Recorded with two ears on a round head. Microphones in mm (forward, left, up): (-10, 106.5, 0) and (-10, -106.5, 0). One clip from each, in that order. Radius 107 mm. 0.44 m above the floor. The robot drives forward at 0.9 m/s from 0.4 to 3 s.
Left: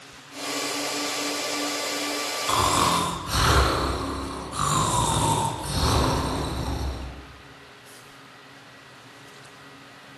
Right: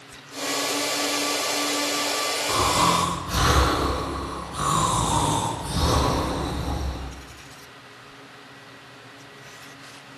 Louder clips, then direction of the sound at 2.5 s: Even; 45° left (ahead or behind).